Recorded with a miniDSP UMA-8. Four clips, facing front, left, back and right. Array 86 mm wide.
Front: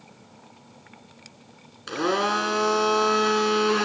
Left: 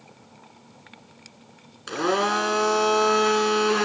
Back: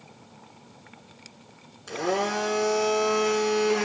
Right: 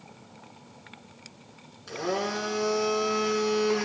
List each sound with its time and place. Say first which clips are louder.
1.9 s a blender: left 7 dB, front 3 dB; 50° left, 2 m